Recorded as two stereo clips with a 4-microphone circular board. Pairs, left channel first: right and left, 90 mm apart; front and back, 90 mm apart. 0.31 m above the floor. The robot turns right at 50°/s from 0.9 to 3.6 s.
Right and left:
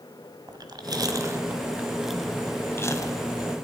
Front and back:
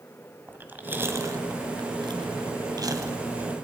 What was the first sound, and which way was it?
Chewing, 115° left.